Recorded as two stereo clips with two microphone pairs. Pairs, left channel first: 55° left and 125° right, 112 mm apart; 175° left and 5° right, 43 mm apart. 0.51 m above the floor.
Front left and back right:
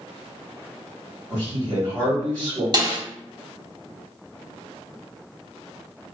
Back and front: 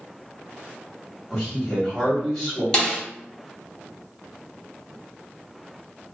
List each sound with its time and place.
1.3 s a man speaking: 115° right, 1.3 m
2.7 s a snare drum: 125° right, 0.7 m